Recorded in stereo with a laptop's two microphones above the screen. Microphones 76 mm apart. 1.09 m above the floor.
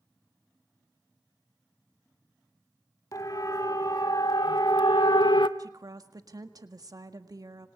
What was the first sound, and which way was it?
A siren, 50° left (ahead or behind).